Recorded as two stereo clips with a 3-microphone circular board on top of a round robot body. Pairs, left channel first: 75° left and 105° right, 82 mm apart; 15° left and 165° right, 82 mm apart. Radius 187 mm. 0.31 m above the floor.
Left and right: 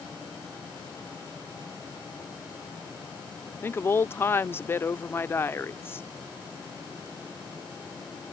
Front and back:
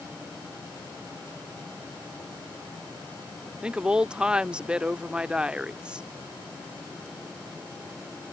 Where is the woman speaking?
120° left.